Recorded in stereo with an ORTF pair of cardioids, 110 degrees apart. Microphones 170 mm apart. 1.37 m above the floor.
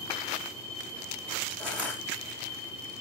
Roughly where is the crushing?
Ahead.